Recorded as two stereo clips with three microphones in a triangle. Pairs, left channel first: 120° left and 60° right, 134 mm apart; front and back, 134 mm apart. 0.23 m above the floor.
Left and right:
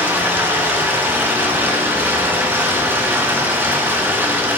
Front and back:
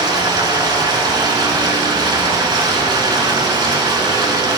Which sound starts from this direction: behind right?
Running water, at 0.0 s.